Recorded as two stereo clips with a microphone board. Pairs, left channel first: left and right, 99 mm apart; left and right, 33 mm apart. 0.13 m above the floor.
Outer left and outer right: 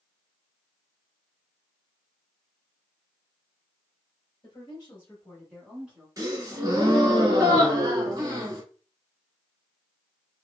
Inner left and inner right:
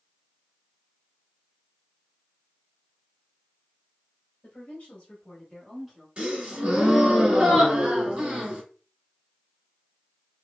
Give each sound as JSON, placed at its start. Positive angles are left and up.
{"t": 4.4, "sound": "a woman speaking", "side_deg": 45, "distance_m": 1.6}
{"t": 6.2, "sound": "a gasp", "side_deg": -30, "distance_m": 1.4}